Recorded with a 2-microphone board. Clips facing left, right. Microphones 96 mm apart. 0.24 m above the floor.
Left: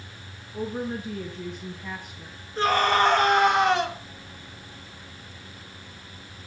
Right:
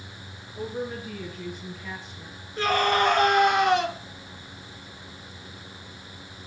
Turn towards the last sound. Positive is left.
turn(degrees=35)  # may be behind; listen again after turning